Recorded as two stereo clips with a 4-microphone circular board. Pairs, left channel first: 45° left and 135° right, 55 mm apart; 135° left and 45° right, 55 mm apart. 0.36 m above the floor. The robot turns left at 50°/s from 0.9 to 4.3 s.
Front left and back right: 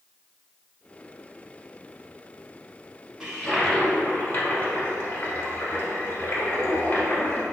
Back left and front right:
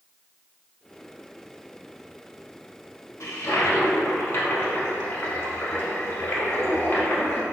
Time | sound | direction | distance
3.2 | a toilet flushing | 145° left | 0.7 m